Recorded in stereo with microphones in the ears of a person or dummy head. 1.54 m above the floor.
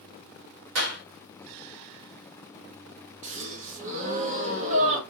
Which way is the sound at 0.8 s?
75° right (ahead or behind).